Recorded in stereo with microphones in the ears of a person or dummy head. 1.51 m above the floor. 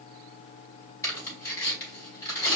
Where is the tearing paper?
15° left (ahead or behind), 3.5 m.